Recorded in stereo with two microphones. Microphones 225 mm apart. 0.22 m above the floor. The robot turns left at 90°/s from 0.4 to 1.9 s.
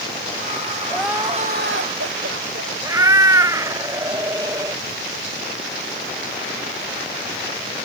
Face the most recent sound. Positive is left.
turn(degrees=-15)  # may be behind; listen again after turning